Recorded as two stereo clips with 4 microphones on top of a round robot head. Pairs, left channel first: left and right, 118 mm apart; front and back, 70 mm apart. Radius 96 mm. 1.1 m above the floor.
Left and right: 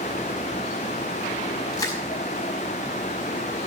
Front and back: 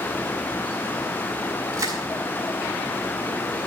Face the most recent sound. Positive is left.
turn(degrees=150)